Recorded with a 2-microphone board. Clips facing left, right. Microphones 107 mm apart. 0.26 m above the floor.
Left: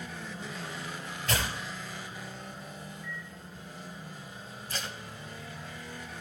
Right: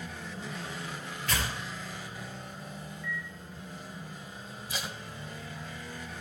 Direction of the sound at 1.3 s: 25° left (ahead or behind).